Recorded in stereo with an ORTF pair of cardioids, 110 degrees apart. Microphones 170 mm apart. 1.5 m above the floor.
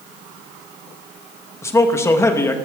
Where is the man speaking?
15° left, 2.0 m.